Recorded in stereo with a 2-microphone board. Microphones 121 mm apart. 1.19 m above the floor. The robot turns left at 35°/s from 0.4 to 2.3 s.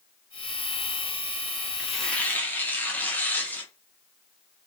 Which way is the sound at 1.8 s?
Centre (ahead or behind).